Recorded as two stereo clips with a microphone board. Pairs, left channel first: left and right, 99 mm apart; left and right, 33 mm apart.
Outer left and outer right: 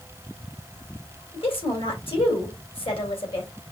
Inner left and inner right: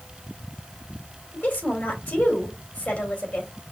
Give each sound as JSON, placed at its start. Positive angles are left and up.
{"t": 1.3, "sound": "a woman speaking", "side_deg": 60, "distance_m": 2.0}